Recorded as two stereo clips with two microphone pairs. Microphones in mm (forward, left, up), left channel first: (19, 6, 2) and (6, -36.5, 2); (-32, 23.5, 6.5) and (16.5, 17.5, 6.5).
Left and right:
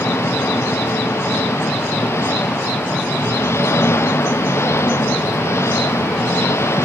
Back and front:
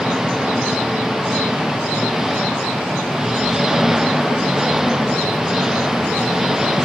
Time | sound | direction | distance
0.0 | an engine running | 75° left | ?